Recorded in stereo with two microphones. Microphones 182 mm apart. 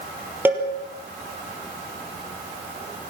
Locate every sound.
0.5 s a cowbell: 10° right (ahead or behind), 4 m